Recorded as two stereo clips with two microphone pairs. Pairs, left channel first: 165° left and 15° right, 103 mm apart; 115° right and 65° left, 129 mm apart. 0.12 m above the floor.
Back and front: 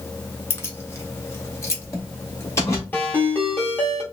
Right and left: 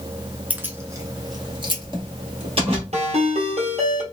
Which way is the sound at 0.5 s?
130° left.